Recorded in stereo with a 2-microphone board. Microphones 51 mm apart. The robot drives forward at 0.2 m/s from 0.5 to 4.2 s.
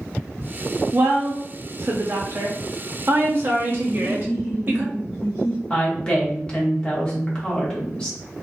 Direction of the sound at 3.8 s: 15° left (ahead or behind).